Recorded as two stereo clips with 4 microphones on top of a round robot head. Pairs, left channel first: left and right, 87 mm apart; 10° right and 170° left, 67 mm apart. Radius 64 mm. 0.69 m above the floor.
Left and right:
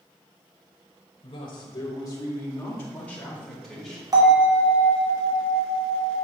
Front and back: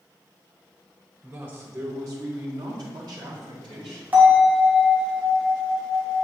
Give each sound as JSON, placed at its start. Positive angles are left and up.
{"t": 1.2, "sound": "a man speaking", "azimuth_deg": 110, "distance_m": 2.5}
{"t": 4.1, "sound": "a bell", "azimuth_deg": -125, "distance_m": 2.5}